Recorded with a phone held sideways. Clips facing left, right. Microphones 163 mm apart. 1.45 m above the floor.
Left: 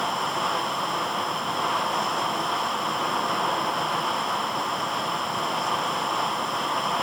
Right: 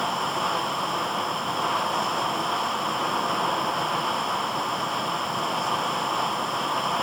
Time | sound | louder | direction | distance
0.0 | running water | even | centre (ahead or behind) | 0.9 m